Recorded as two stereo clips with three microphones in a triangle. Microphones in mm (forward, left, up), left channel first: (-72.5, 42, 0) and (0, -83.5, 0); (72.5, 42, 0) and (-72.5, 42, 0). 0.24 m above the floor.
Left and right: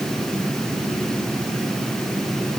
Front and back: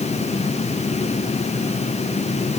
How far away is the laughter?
I don't hear laughter.